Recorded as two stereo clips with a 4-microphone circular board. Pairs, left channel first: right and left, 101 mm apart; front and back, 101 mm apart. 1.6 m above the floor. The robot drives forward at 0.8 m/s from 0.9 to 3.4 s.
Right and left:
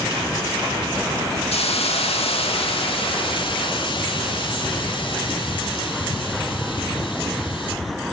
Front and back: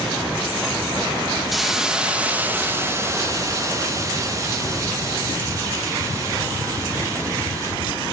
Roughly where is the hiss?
Right.